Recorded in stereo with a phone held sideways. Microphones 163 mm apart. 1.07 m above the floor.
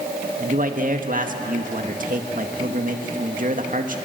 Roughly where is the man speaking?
Right.